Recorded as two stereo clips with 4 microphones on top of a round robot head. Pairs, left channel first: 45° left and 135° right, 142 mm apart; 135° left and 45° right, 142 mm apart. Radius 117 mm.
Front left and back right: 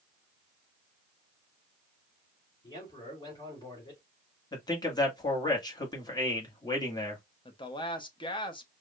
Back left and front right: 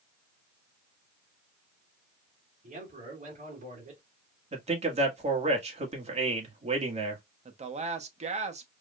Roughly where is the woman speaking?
Ahead.